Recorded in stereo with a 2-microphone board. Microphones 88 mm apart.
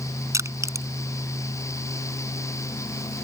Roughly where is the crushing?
Right.